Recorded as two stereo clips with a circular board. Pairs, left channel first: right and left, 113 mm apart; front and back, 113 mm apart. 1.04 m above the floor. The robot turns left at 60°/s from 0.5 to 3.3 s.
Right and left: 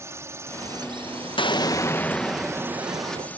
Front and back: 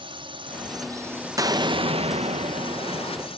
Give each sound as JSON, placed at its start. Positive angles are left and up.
{"t": 0.0, "sound": "a drone", "azimuth_deg": 150}
{"t": 1.4, "sound": "an explosion", "azimuth_deg": -125}